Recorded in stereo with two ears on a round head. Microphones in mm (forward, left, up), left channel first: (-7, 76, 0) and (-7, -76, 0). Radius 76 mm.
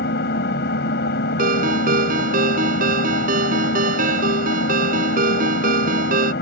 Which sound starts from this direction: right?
A ringtone, at 1.4 s.